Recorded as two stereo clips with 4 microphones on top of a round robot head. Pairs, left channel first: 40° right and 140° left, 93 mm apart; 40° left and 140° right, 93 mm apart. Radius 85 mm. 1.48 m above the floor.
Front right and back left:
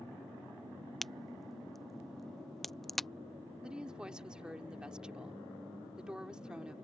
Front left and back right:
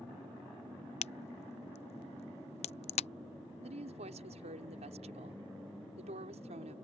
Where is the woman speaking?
140° right.